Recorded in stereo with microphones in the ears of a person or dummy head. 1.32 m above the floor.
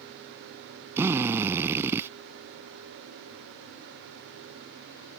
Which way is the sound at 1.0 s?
10° right (ahead or behind).